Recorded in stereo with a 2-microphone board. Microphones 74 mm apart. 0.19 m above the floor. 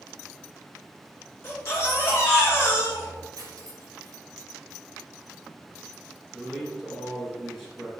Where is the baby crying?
35° left (ahead or behind), 2 m.